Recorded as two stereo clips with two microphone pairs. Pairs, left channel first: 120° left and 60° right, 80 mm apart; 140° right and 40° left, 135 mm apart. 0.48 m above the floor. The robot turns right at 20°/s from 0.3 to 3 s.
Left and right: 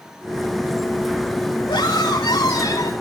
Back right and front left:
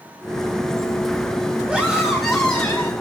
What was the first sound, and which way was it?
A scream, 125° left.